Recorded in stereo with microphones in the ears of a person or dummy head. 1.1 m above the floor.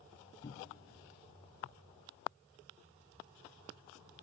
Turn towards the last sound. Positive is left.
turn(degrees=20)  # may be behind; listen again after turning